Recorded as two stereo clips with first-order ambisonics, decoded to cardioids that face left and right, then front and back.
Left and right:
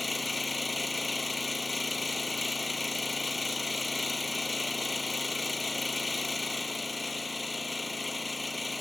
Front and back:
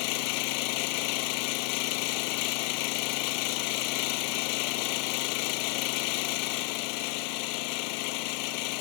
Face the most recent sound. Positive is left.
turn(degrees=10)